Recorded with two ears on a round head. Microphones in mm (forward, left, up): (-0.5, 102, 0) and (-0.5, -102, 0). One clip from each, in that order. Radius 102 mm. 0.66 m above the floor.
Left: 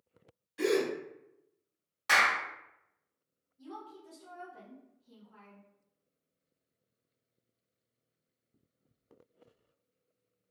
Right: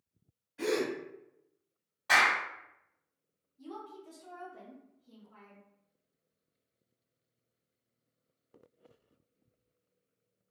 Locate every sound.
0.6 s a gasp: 80° left, 1.0 m
2.1 s a clap: 70° left (ahead or behind), 1.3 m
3.6 s a woman speaking: centre (ahead or behind), 1.5 m